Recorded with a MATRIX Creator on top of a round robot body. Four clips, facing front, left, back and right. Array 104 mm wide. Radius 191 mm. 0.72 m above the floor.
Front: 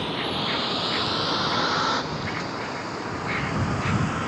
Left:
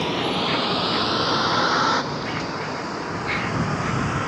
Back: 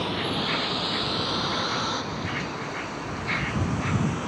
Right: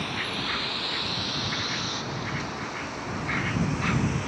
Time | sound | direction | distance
0.0 | a vehicle | 90° left | ?